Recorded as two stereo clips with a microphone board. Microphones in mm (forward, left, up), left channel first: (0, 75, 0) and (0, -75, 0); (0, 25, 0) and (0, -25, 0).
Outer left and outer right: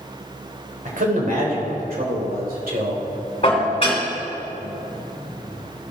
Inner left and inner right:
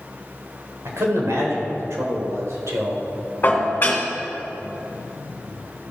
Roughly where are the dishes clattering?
Left.